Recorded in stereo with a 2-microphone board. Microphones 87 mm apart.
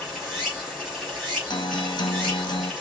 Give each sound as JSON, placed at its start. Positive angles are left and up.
{"t": 0.0, "sound": "running water", "side_deg": -5, "distance_m": 2.5}
{"t": 1.5, "sound": "a guitar", "side_deg": 55, "distance_m": 0.8}